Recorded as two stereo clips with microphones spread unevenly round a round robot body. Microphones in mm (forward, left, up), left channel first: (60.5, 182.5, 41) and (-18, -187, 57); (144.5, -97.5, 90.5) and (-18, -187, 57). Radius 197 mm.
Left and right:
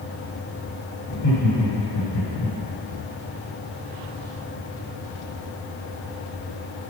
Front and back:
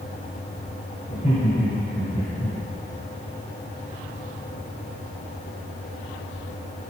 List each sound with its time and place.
1.1 s laughter: 80° left, 2 m; by 2.5 s 110° left, 2 m